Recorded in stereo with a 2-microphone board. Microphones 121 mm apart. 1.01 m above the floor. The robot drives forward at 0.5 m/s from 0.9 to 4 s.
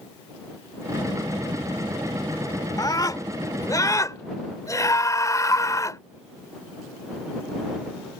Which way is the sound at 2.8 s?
30° left (ahead or behind).